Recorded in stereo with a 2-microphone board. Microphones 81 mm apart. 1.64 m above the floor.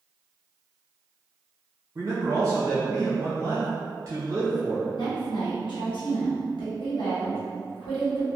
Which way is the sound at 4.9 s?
75° left (ahead or behind).